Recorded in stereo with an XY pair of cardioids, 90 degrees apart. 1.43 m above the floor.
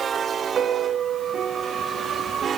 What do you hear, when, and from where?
0.6 s a piano: 60° right, 2 m